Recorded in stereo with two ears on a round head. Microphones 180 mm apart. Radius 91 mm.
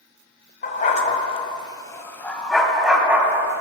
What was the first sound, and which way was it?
A dog barking, 45° left (ahead or behind).